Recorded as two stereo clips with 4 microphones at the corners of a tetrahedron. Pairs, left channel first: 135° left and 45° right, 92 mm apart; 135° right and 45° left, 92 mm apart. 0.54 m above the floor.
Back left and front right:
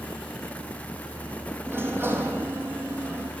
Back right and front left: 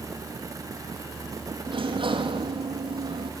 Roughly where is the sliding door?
Ahead.